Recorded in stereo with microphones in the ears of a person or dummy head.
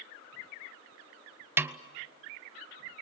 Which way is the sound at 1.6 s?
10° right (ahead or behind).